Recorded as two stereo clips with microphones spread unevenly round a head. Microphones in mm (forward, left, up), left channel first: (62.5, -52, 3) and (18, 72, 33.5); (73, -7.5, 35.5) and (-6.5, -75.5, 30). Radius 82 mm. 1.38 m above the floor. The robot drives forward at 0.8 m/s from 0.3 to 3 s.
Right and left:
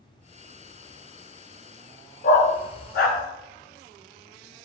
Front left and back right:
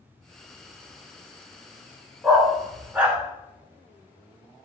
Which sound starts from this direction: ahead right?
A dog barking, at 2.2 s.